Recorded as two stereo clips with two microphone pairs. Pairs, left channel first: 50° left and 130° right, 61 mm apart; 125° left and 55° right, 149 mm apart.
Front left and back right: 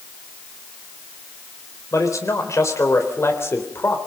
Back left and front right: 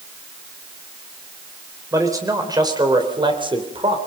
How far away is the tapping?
I don't hear tapping.